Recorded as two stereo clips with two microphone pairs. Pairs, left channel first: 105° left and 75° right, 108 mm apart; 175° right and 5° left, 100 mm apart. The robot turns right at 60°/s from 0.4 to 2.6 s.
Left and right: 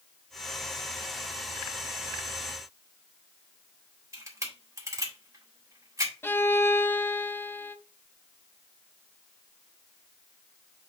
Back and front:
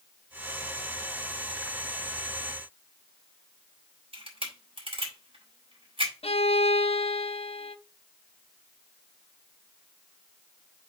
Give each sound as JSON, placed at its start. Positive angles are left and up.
{"t": 4.1, "sound": "a camera shutter", "azimuth_deg": -15, "distance_m": 3.5}
{"t": 6.2, "sound": "a violin", "azimuth_deg": 180, "distance_m": 0.5}